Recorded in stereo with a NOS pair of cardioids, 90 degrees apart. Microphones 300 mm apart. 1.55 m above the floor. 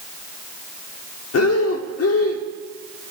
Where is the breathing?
55° left, 1.1 m.